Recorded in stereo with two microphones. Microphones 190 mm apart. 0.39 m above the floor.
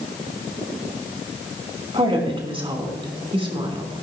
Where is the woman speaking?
30° right (ahead or behind), 3.5 m.